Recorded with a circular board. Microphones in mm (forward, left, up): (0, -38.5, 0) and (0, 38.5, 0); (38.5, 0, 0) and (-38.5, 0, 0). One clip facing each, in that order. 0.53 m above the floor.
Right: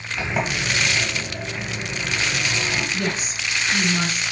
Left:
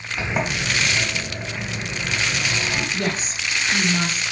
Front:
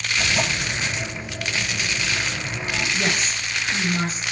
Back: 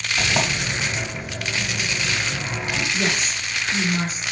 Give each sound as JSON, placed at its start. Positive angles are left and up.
{"t": 0.2, "sound": "a sliding door", "azimuth_deg": 165, "distance_m": 0.9}
{"t": 2.9, "sound": "a woman speaking", "azimuth_deg": 95, "distance_m": 1.4}